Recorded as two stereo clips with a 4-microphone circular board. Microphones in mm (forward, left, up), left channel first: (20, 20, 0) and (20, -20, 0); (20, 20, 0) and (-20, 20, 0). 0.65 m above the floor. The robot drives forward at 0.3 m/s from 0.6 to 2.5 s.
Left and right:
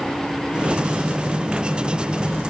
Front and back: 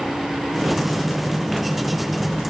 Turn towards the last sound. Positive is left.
No sound to turn to.